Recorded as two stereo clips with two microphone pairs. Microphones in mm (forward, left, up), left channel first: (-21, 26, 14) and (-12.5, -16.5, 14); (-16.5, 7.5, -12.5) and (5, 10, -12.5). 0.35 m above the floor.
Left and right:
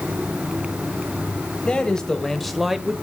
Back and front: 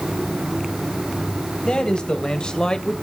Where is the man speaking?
165° left, 1.7 m; by 2.9 s 145° right, 1.3 m.